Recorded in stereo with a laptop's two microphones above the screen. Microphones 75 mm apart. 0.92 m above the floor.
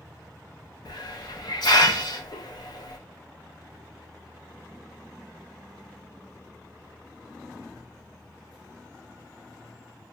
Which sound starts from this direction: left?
A hiss, at 0.8 s.